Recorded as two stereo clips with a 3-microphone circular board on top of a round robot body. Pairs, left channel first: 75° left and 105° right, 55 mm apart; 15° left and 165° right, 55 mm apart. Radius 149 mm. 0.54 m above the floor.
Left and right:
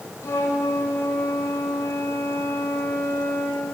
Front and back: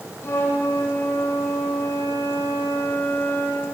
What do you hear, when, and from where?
0.2 s a flute: 50° left, 5.5 m